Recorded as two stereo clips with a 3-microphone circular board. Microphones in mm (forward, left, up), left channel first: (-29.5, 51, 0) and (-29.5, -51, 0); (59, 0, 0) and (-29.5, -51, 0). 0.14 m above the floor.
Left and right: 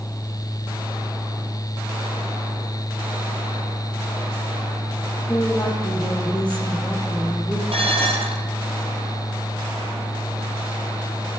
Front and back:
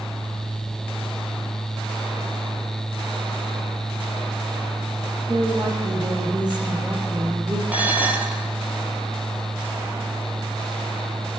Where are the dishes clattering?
75° right, 2.5 m.